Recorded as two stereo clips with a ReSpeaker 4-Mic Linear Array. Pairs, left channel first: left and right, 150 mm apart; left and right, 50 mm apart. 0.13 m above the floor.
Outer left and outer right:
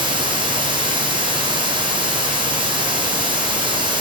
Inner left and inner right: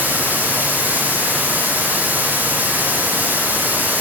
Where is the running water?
30° right (ahead or behind), 0.8 m.